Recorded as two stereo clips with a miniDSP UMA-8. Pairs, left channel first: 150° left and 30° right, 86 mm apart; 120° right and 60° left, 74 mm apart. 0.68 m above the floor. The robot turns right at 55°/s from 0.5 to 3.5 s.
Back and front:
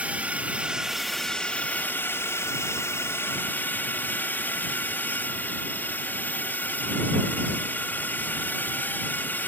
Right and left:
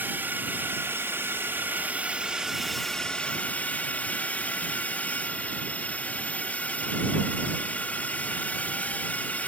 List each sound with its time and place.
0.0 s a drone: 30° left; by 9.5 s 165° right